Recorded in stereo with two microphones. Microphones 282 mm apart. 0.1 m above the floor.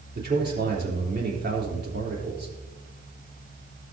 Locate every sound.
0.1 s a man speaking: 35° right (ahead or behind), 3.5 m